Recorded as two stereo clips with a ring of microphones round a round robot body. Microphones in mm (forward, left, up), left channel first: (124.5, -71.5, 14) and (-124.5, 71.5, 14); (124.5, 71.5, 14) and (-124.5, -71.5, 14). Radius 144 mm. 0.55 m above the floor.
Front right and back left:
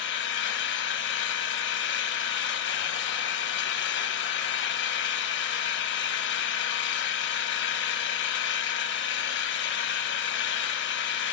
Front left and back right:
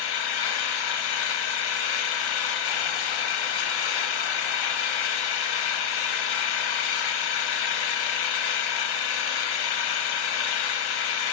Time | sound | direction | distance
0.0 | an engine running | 25° left | 0.9 m